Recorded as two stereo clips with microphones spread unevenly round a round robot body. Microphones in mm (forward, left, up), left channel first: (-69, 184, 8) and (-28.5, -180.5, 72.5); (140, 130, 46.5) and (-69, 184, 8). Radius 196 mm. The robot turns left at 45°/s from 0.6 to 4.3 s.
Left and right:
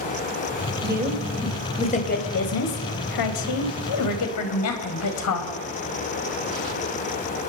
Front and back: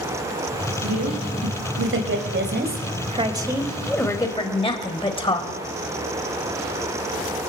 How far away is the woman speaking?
About 3 m.